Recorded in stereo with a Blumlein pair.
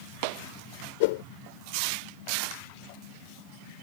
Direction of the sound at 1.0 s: 50° left.